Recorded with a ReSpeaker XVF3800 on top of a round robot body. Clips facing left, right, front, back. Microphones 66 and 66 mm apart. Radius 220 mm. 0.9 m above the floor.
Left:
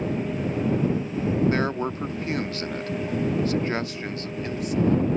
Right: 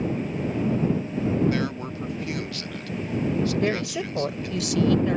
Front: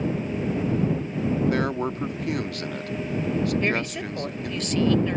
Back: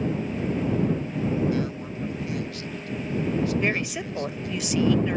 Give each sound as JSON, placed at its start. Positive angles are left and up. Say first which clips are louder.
{"t": 1.5, "sound": "a man speaking", "louder": "left 2 dB, front 4 dB", "azimuth_deg": 35}
{"t": 3.6, "sound": "a woman speaking", "louder": "right 2 dB, front 1 dB", "azimuth_deg": -100}